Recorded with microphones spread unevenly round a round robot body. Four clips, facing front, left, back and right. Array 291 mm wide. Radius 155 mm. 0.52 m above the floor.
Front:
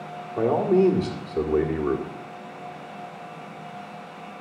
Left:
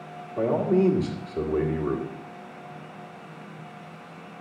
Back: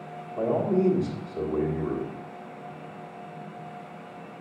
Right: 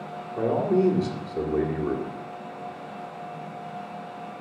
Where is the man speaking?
10° left, 1.8 m.